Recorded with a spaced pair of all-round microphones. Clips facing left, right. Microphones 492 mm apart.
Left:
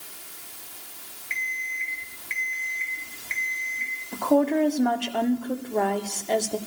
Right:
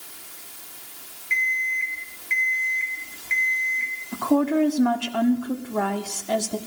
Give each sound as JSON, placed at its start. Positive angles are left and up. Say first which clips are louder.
{"t": 1.3, "sound": "an alarm clock", "louder": "right 8 dB", "side_deg": 0, "distance_m": 2.0}
{"t": 4.1, "sound": "a woman speaking", "louder": "right 1 dB", "side_deg": -30, "distance_m": 1.2}